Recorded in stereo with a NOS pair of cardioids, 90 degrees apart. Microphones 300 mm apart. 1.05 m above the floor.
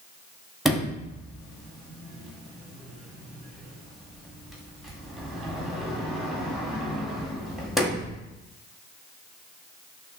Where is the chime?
No chime in this recording.